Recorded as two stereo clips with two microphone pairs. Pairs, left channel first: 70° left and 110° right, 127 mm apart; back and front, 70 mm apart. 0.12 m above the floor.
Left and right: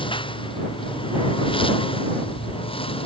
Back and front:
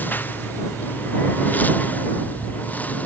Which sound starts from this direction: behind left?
A lawn mower, at 0.0 s.